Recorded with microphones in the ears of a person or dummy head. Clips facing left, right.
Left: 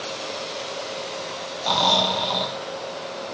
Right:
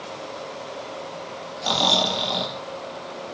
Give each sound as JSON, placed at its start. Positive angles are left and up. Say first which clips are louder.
{"t": 1.6, "sound": "snoring", "louder": "left 1 dB", "side_deg": -10, "distance_m": 1.0}